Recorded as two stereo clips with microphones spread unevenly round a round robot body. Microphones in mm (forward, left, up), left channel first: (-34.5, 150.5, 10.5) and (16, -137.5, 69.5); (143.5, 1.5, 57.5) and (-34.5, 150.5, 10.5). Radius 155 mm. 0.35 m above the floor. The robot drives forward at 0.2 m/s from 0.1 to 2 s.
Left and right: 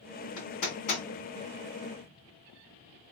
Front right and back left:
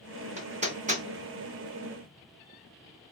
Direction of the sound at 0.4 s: 80° left.